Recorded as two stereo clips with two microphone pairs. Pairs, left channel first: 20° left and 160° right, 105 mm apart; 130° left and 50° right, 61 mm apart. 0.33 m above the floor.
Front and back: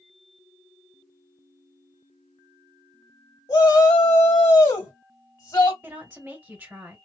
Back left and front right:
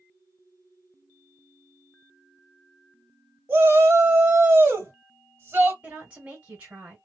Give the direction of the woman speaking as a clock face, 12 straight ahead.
3 o'clock.